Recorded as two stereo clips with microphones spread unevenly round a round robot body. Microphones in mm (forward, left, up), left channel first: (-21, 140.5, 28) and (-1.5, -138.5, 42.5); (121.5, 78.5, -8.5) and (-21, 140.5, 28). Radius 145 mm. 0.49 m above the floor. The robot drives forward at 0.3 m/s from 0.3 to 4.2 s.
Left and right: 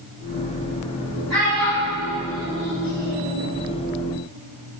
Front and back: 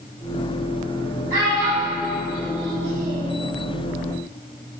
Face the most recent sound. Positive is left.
turn(degrees=180)